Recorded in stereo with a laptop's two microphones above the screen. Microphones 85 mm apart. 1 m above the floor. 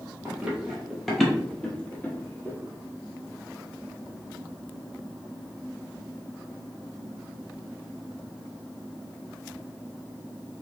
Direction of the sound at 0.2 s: 15° right (ahead or behind).